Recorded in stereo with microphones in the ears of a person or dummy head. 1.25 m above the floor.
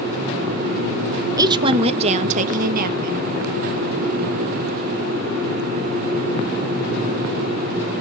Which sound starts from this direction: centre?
A woman speaking, at 1.4 s.